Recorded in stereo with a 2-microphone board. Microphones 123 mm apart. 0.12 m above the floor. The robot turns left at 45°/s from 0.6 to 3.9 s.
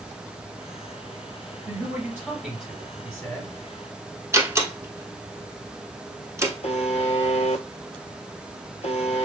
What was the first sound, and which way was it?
A man speaking, 145° right.